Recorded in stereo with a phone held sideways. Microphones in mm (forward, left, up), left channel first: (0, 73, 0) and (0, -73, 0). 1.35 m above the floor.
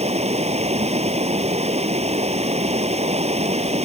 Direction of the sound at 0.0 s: 45° right (ahead or behind).